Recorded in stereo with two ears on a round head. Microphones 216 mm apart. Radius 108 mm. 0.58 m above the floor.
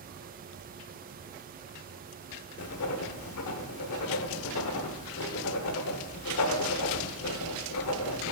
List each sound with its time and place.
2.6 s writing: 65° left (ahead or behind), 0.9 m